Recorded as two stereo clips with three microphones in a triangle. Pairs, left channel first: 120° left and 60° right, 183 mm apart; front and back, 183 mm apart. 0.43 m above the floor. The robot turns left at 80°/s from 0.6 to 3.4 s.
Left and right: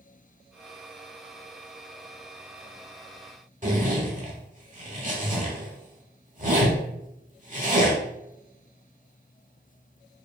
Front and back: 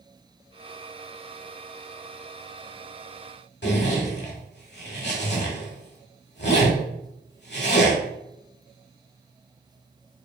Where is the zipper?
15° right, 1.0 m.